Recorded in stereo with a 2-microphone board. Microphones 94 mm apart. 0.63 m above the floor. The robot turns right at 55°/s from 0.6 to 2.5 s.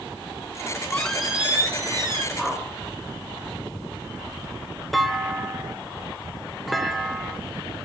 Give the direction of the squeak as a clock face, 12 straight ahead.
7 o'clock.